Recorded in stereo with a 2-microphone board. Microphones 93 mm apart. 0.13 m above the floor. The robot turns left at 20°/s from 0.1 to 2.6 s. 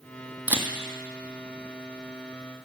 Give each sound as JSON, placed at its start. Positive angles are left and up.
{"t": 0.5, "sound": "a camera shutter", "side_deg": -15, "distance_m": 1.5}